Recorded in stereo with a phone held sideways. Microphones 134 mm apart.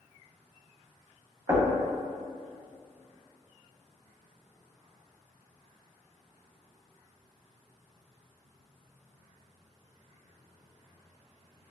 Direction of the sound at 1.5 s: 25° right (ahead or behind).